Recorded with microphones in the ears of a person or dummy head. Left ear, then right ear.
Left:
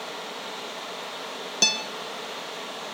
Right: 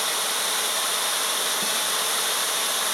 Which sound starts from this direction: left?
A guitar, at 1.6 s.